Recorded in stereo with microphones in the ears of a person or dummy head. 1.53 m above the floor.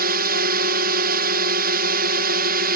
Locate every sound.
0.0 s a drone: 55° right (ahead or behind)